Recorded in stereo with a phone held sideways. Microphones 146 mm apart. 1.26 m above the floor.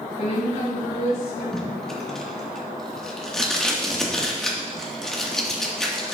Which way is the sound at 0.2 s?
25° left (ahead or behind).